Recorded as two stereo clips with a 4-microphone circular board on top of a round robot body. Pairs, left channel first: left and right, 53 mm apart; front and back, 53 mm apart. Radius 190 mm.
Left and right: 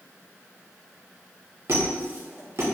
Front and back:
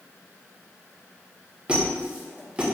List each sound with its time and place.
1.7 s a squeak: 115° right, 1.5 m